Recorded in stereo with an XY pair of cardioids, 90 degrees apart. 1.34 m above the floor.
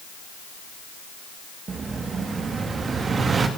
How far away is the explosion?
About 3 m.